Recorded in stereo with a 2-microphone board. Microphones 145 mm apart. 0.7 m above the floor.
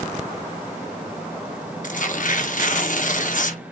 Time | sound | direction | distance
1.8 | tearing paper | 65° left (ahead or behind) | 0.8 m